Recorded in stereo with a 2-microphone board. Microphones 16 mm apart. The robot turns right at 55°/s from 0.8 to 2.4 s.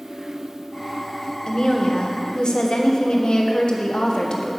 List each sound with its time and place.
1.5 s a woman speaking: 55° left, 1.4 m; by 4.5 s 105° left, 1.4 m